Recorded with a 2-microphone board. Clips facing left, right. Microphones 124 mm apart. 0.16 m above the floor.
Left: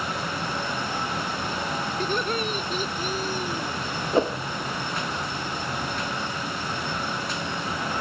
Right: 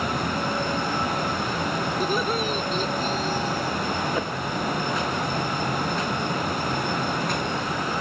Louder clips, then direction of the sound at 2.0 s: Right 1 dB; 10° right (ahead or behind).